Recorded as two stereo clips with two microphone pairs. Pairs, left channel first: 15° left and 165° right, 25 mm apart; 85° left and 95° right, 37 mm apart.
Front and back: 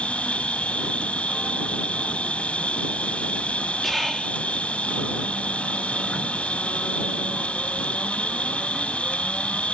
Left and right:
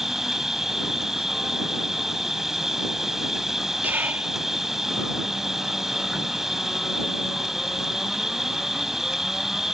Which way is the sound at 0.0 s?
10° right.